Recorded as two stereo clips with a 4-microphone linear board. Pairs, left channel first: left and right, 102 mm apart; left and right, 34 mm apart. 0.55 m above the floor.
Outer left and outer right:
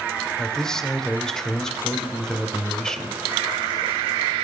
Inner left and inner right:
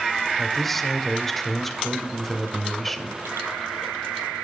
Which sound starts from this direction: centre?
A man speaking, at 0.4 s.